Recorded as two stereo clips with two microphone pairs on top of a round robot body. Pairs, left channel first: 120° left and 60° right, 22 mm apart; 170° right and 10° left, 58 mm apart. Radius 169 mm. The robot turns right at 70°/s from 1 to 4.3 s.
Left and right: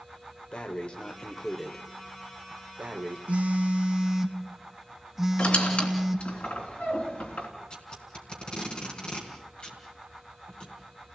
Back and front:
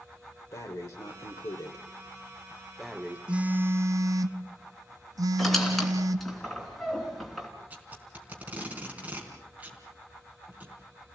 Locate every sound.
0.5 s breathing: 150° left, 1.2 m; by 3.2 s 55° right, 1.2 m
3.3 s a phone buzzing: 60° right, 0.9 m; by 6.3 s 10° left, 0.9 m
5.4 s a squeak: 105° left, 3 m
7.7 s tape being pulled: 75° left, 3.5 m